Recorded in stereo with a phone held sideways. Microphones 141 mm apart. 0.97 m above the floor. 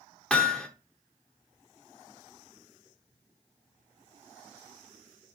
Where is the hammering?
5° left (ahead or behind), 1.1 m.